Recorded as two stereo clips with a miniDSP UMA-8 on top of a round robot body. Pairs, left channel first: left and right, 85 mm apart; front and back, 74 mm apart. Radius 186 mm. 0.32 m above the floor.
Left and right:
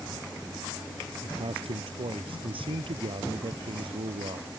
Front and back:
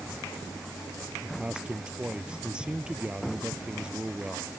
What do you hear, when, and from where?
1.2 s a man speaking: 100° right